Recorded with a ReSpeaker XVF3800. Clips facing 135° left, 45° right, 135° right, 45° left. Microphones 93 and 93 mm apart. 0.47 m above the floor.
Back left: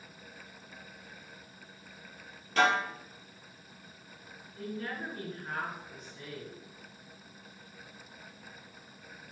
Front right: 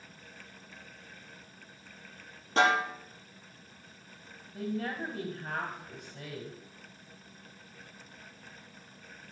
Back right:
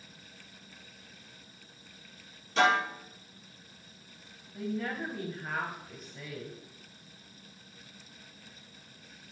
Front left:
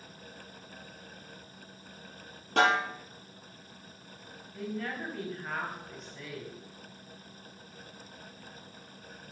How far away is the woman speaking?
About 2 m.